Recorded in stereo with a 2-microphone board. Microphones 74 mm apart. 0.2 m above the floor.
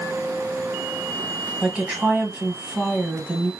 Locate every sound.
1.6 s a woman speaking: 15° right (ahead or behind), 1.4 m